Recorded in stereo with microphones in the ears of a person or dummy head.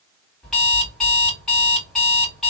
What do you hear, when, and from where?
0.4 s an alarm clock: 5° left (ahead or behind), 1.9 m